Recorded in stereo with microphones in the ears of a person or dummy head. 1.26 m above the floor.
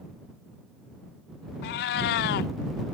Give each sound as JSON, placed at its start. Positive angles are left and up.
{"t": 1.6, "sound": "a cat meowing", "side_deg": 55}